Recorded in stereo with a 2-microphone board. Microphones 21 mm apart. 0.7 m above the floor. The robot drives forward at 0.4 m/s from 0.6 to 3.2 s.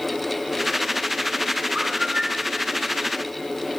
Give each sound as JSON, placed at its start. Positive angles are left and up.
{"t": 1.8, "sound": "a bird", "side_deg": -50, "distance_m": 1.6}